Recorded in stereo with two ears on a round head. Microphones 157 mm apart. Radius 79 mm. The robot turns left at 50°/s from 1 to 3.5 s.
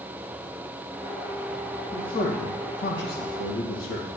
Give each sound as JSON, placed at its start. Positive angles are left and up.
{"t": 1.9, "sound": "a man speaking", "azimuth_deg": 160, "distance_m": 2.0}